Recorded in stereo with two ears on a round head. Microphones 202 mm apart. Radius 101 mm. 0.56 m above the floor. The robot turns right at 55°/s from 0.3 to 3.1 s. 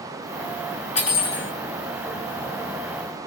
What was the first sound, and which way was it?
Cutlery clinking, 30° left.